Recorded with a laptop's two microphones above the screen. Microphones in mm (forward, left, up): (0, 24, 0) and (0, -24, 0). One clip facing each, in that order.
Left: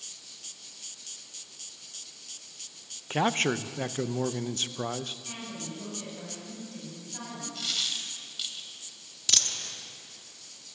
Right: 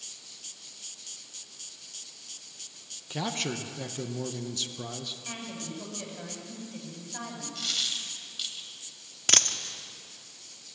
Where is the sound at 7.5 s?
5° left (ahead or behind), 1.9 m.